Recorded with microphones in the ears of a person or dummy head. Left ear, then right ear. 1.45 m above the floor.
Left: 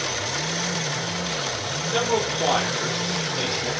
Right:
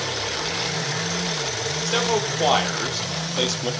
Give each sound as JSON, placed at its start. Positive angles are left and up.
{"t": 1.9, "sound": "a man speaking", "side_deg": -80, "distance_m": 6.0}